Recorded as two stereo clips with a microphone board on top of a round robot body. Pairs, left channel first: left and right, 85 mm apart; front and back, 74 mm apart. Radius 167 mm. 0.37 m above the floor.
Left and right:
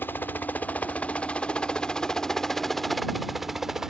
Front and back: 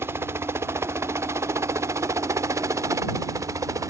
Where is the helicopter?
145° left; by 3.9 s 175° right.